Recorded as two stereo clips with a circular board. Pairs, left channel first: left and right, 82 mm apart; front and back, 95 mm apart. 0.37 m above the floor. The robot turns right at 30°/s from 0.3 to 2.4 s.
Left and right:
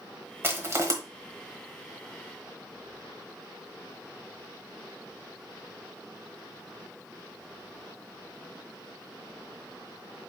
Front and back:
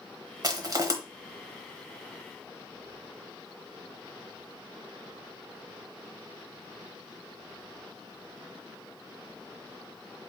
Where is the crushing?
145° right, 1.0 m; by 0.9 s 130° right, 1.0 m.